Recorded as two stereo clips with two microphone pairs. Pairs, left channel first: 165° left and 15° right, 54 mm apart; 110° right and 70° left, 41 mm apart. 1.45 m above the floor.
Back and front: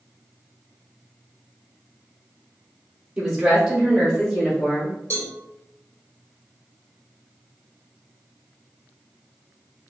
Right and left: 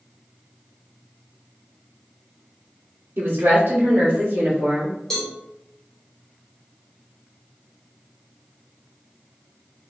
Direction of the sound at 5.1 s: 170° left.